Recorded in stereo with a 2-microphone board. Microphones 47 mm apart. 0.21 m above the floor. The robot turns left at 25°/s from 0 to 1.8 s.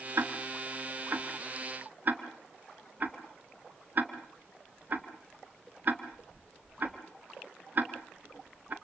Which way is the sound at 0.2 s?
65° right (ahead or behind).